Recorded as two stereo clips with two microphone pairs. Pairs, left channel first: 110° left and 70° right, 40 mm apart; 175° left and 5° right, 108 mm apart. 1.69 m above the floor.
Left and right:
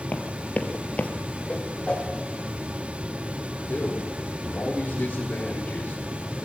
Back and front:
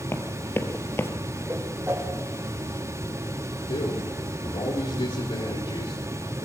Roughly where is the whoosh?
Ahead left.